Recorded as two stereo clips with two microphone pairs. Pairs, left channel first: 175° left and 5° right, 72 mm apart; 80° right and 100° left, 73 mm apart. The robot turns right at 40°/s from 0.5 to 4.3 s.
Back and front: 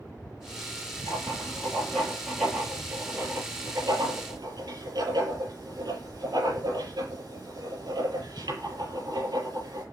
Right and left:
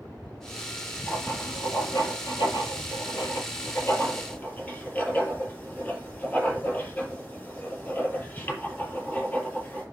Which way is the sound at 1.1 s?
140° right.